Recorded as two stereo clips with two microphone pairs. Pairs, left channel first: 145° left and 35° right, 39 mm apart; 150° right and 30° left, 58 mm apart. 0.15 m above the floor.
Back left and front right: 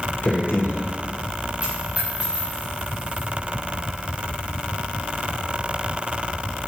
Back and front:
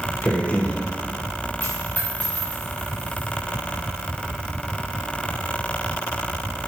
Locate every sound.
0.2 s a man speaking: 145° left, 4 m
1.6 s a dropped coin: 90° right, 5.5 m